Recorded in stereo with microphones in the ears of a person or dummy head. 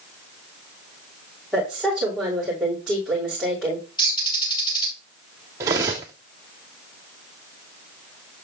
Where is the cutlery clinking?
10° right (ahead or behind), 0.7 m.